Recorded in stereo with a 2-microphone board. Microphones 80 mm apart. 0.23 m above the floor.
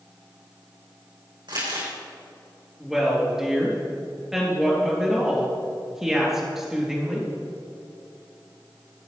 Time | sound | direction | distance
1.5 | crumpling | 70° right (ahead or behind) | 4.5 m
2.8 | a woman speaking | 5° right (ahead or behind) | 3.5 m